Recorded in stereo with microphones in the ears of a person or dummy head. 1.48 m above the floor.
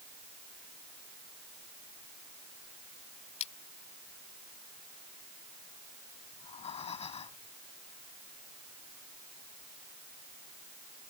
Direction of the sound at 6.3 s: 35° left (ahead or behind).